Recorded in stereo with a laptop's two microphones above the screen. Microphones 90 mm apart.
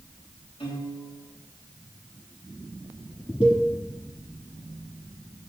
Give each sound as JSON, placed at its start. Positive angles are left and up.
{"t": 0.6, "sound": "a piano", "side_deg": 80, "distance_m": 4.5}
{"t": 3.4, "sound": "a cowbell", "side_deg": 80, "distance_m": 4.0}